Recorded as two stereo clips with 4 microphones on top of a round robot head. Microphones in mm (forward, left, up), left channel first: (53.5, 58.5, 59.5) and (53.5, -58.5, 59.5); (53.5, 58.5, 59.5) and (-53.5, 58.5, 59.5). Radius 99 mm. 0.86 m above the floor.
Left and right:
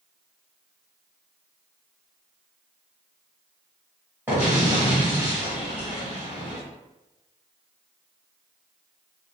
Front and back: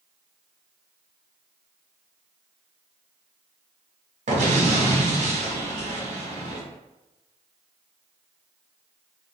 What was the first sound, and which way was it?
An explosion, 170° right.